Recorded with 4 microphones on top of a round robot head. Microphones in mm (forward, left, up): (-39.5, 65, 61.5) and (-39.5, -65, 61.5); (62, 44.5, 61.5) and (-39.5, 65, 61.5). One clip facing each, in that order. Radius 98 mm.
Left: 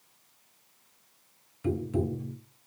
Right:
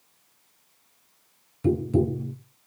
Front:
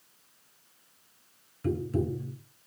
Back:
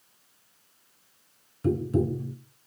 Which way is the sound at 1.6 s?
130° right.